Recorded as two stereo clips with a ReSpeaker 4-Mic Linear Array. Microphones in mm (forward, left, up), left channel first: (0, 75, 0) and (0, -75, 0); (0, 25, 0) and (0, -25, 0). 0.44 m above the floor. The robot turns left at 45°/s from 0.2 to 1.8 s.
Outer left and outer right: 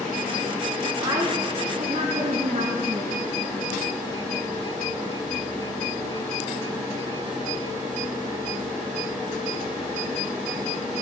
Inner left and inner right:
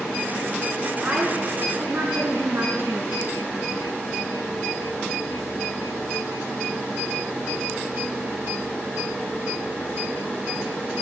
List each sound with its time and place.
1.0 s a woman speaking: 15° right, 5 m; by 3.2 s 50° right, 5 m